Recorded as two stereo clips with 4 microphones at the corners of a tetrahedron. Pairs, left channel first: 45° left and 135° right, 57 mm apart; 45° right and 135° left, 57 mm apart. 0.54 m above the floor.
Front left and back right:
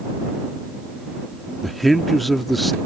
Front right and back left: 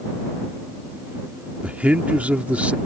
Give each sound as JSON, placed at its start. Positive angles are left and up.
{"t": 1.6, "sound": "a man speaking", "azimuth_deg": 135}